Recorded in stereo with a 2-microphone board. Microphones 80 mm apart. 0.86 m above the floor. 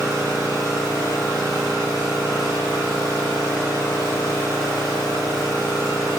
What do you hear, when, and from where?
0.0 s an engine running: 45° left (ahead or behind), 1.9 m